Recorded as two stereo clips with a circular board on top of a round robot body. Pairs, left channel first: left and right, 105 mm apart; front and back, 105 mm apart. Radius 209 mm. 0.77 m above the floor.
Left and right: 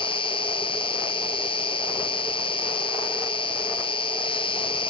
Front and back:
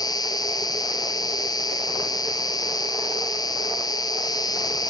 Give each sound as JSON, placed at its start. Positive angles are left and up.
{"t": 0.0, "sound": "an insect", "azimuth_deg": 55, "distance_m": 1.0}